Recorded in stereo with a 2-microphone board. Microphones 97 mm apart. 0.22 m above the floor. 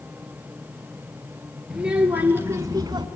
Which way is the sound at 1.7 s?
10° right (ahead or behind).